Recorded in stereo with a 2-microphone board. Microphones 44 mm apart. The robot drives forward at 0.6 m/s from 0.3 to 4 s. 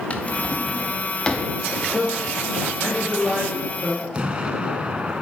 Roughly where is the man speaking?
Centre.